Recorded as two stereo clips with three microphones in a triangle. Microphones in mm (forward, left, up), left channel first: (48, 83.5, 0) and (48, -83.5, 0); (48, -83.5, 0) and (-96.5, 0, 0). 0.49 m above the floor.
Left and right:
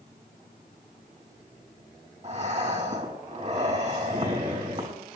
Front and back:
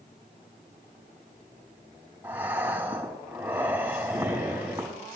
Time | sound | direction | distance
2.2 | breathing | 135° right | 5 m